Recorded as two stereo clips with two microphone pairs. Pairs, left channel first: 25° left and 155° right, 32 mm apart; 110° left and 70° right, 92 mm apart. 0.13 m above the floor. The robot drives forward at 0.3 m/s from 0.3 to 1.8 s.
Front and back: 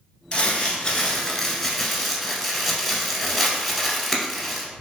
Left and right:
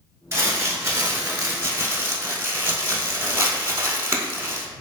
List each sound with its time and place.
0.3 s crumpling: 25° right, 0.7 m; by 4.7 s 70° right, 0.5 m